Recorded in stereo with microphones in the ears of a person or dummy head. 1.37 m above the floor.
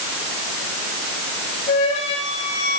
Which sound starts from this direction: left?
A flute, at 1.7 s.